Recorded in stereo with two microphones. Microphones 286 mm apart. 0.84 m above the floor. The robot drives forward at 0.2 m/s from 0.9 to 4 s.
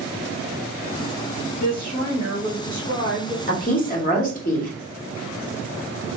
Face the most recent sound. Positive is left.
turn(degrees=25)  # may be behind; listen again after turning